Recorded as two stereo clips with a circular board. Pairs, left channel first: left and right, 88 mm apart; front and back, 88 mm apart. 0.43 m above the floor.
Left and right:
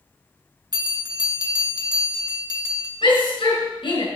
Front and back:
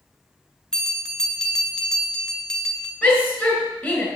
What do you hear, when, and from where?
0.7 s a bell: 80° right, 1.8 m
3.0 s a shout: 80° left, 6 m